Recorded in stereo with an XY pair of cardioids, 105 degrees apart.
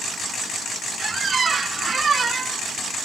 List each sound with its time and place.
1.0 s a squeak: 35° right, 0.5 m